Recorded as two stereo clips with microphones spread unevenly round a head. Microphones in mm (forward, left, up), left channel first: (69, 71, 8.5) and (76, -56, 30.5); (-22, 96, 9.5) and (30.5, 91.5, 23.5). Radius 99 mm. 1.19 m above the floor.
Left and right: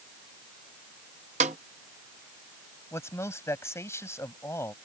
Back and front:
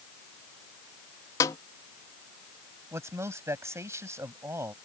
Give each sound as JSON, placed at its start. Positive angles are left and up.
{"t": 1.4, "sound": "a snare drum", "azimuth_deg": -145}
{"t": 2.9, "sound": "a man speaking", "azimuth_deg": 25}